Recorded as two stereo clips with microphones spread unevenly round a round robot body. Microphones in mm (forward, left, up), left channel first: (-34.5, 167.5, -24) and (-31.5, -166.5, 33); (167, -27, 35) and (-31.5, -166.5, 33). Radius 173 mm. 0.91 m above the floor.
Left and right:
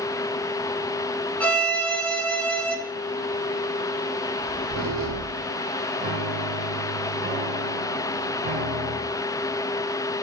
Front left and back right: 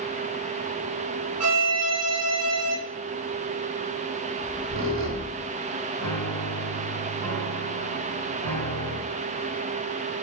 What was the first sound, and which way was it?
A violin, 175° left.